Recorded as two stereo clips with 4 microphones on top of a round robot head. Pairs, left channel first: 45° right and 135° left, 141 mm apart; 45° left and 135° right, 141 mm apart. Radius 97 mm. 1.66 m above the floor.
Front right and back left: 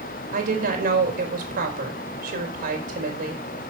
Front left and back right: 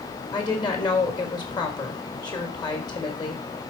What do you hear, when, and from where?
0.3 s a woman speaking: 105° left, 4 m